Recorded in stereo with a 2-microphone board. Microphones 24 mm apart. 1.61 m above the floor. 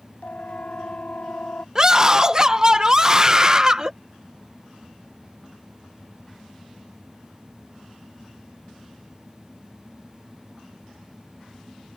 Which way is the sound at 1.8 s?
25° right (ahead or behind).